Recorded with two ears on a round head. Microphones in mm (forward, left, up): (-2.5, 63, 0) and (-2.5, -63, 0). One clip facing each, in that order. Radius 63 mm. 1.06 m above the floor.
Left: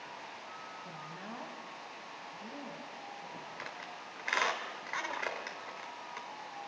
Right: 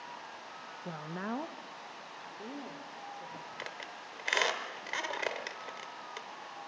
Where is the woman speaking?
75° right (ahead or behind), 0.5 m; by 3.5 s 65° right (ahead or behind), 3.5 m.